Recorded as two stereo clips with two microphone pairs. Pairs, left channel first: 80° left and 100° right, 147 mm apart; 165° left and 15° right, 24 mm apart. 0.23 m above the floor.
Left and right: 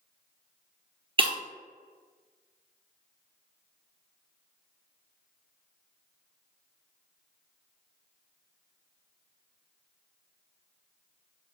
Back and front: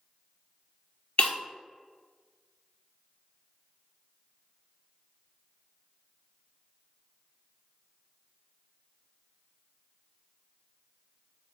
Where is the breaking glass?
150° right, 0.5 m.